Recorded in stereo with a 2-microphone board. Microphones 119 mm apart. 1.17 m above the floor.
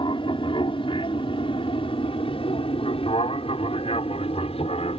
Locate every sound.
0.0 s an aircraft: 45° left (ahead or behind); by 5.0 s 55° left (ahead or behind)